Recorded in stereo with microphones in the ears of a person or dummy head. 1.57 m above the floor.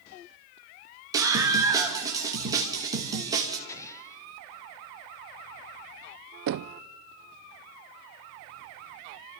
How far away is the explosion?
About 0.8 m.